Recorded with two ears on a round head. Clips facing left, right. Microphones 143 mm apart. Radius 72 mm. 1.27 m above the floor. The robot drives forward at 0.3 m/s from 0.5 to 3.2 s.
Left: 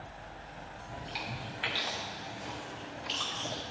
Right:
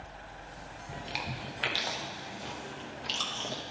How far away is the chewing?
About 1.0 m.